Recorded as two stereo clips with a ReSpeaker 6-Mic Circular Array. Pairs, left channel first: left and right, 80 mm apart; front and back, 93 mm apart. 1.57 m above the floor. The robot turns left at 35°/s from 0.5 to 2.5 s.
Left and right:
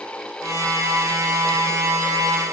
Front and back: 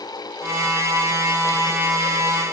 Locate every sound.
Only background noise.